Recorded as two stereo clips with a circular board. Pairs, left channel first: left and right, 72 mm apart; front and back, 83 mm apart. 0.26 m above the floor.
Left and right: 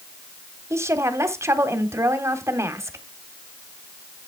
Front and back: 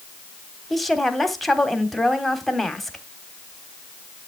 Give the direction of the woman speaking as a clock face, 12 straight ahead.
3 o'clock.